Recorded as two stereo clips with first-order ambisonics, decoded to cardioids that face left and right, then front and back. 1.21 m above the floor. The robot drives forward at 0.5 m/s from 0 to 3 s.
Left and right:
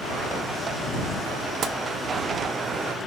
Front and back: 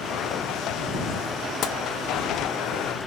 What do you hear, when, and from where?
1.6 s tapping: 40° right, 0.8 m; by 1.8 s 45° right, 0.8 m